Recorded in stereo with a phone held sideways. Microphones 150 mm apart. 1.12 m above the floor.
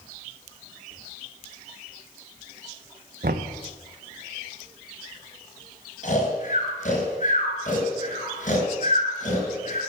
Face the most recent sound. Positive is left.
turn(degrees=55)  # may be behind; listen again after turning